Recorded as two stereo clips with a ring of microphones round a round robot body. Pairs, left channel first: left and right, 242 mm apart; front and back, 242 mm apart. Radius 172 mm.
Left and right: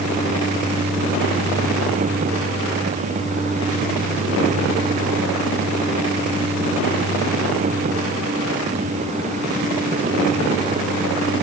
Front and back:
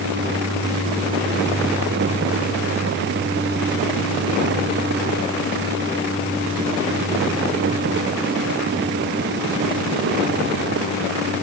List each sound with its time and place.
Only background noise.